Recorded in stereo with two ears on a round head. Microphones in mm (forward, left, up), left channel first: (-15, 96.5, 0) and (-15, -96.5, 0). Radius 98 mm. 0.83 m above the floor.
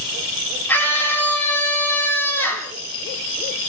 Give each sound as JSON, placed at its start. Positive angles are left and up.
{"t": 0.7, "sound": "a scream", "side_deg": 10, "distance_m": 8.0}